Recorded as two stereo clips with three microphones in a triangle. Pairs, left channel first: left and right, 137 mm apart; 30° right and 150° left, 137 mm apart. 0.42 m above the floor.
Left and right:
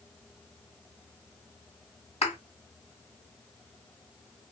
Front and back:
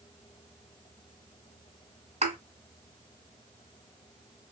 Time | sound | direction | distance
2.2 | a thud | 125° left | 1.6 m